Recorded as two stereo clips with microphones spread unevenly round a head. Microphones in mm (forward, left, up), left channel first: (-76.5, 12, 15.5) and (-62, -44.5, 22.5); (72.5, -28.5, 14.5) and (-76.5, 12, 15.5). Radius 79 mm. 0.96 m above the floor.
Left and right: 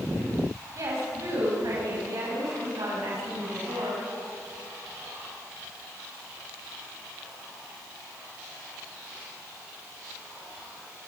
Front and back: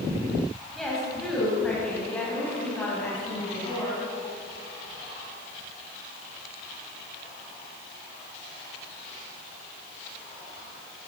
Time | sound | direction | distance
0.8 | a woman speaking | 105° right | 7 m